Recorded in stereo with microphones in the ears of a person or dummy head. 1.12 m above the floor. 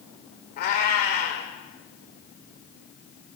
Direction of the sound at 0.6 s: 50° left (ahead or behind).